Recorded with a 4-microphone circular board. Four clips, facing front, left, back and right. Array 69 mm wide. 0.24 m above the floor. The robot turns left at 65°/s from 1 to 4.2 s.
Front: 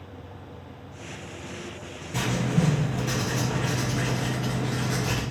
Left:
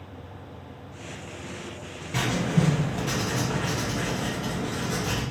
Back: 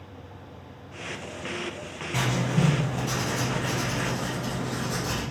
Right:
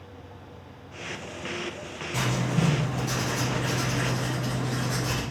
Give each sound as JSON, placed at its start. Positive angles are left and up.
{"t": 2.1, "sound": "writing", "azimuth_deg": 145, "distance_m": 2.5}